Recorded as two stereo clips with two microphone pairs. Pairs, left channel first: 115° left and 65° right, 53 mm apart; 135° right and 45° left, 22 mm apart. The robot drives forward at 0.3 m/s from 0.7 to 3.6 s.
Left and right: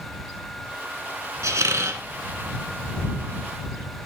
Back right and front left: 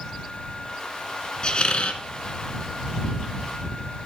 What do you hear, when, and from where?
1.4 s a squeak: 85° right, 0.6 m; by 2.0 s 100° right, 0.6 m